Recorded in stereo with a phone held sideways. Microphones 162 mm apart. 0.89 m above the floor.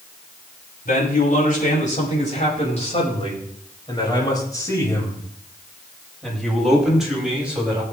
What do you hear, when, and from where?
0.8 s a man speaking: 60° left (ahead or behind), 6 m; by 7.8 s 10° right (ahead or behind), 6.5 m